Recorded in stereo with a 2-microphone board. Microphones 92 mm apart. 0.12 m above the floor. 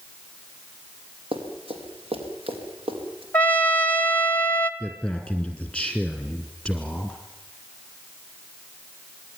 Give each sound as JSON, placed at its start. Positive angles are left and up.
{"t": 1.3, "sound": "running footsteps", "side_deg": -85, "distance_m": 5.0}
{"t": 3.3, "sound": "a trumpet", "side_deg": 25, "distance_m": 1.2}
{"t": 4.8, "sound": "a man speaking", "side_deg": -5, "distance_m": 2.0}